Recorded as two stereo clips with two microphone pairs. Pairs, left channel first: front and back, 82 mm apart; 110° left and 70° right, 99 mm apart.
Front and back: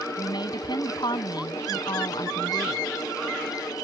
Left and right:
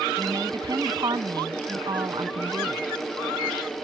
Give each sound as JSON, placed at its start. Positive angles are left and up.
{"t": 0.2, "sound": "a woman speaking", "azimuth_deg": -20}